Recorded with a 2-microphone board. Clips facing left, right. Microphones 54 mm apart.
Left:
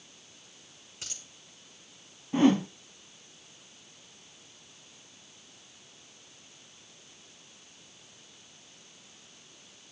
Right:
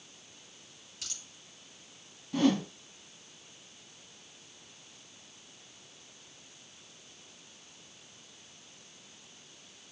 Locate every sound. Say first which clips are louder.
1.0 s a dropped coin: left 1 dB; 30° left (ahead or behind), 3 m
2.3 s a whoosh: left 4 dB; 25° left (ahead or behind), 1.1 m